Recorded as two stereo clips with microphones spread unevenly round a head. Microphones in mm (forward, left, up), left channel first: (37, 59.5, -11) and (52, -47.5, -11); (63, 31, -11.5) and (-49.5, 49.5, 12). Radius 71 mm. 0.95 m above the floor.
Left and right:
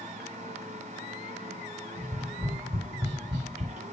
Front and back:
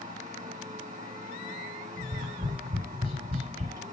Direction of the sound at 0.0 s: 125° right.